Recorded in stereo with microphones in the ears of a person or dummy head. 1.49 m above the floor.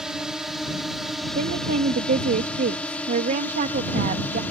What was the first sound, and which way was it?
A drone, centre (ahead or behind).